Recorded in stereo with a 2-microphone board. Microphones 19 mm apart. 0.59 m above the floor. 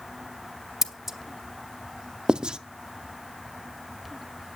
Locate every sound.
0.8 s scissors: 30° right (ahead or behind), 0.8 m
2.3 s writing: 50° right (ahead or behind), 0.5 m